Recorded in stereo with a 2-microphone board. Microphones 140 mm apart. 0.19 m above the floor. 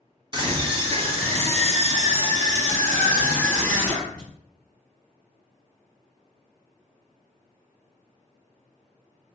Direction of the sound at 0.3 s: 35° right (ahead or behind).